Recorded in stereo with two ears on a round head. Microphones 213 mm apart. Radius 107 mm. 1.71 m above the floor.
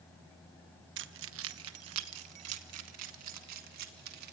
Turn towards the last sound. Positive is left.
turn(degrees=-70)  # may be behind; listen again after turning